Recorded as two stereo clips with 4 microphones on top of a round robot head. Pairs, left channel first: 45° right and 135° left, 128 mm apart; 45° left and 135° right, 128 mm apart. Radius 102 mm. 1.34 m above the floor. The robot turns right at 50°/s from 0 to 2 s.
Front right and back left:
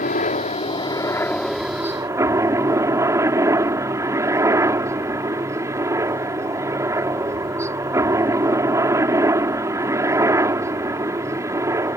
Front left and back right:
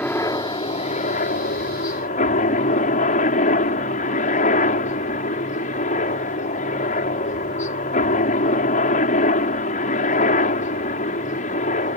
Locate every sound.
0.0 s a helicopter: 30° right; by 12.0 s 70° left